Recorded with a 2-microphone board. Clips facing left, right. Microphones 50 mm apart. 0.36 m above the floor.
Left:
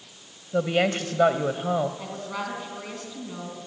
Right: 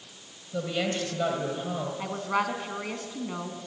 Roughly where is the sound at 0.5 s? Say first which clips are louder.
Left 6 dB; left.